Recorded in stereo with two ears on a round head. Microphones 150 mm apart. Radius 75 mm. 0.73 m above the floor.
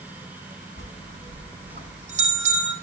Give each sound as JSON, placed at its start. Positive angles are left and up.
{"t": 0.8, "sound": "a bell", "side_deg": -45, "distance_m": 7.5}